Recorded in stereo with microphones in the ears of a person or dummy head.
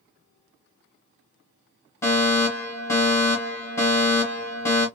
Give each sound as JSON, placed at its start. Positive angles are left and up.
{"t": 2.0, "sound": "a fire alarm", "side_deg": 15, "distance_m": 2.5}